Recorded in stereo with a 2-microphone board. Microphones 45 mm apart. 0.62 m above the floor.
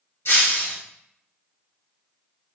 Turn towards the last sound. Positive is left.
turn(degrees=80)